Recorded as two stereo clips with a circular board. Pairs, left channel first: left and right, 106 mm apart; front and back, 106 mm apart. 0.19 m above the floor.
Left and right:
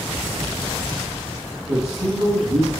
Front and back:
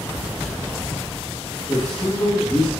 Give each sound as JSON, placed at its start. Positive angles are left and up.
{"t": 1.7, "sound": "a man speaking", "azimuth_deg": -85, "distance_m": 3.5}